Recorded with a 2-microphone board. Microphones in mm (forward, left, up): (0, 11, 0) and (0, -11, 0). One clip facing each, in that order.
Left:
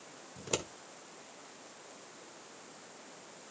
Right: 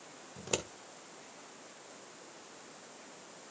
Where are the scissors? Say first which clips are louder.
Even; 5° right (ahead or behind), 1.7 m.